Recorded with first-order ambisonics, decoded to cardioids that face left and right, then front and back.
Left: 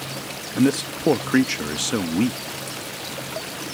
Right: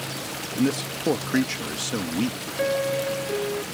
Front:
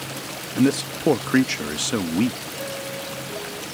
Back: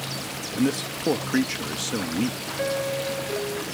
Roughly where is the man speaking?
Ahead left.